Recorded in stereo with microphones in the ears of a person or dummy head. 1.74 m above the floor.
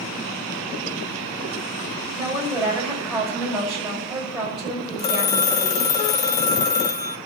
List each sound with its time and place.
2.1 s a woman speaking: centre (ahead or behind), 6.5 m
5.0 s a phone ringing: 20° left (ahead or behind), 0.7 m